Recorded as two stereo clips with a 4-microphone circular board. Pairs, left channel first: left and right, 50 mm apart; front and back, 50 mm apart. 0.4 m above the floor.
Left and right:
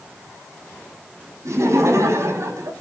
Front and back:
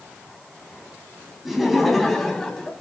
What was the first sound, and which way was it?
Laughter, 95° right.